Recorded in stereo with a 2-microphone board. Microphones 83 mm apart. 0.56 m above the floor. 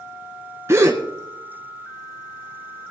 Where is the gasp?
35° right (ahead or behind), 1.4 m.